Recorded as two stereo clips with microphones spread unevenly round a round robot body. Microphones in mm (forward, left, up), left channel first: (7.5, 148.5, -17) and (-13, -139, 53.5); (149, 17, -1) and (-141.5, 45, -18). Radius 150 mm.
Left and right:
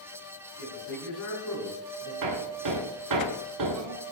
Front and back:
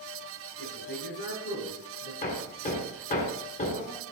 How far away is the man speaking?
About 5.5 m.